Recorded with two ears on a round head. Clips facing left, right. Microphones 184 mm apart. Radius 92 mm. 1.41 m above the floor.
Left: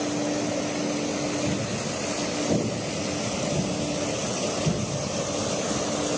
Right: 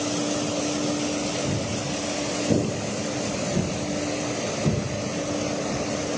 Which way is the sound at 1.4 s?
5° left (ahead or behind).